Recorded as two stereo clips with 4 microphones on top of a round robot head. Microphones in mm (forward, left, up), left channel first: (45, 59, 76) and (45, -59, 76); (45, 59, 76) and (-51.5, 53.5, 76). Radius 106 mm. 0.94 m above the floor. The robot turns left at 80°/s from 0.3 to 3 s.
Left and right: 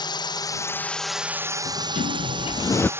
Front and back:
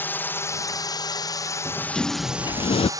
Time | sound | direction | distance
0.0 | a drone | 65° left | ?
1.6 | a sliding door | 115° left | ?